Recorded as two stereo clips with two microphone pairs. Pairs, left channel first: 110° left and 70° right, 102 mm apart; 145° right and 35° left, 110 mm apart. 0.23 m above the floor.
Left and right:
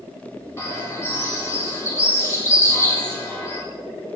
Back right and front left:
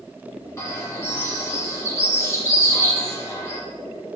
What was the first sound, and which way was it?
A bird, 165° left.